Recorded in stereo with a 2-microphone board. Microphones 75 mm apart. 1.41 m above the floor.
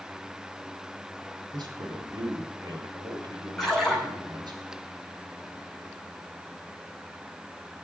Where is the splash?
Centre (ahead or behind), 9.5 m.